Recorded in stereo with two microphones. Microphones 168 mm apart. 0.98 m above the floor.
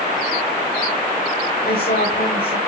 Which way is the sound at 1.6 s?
85° left.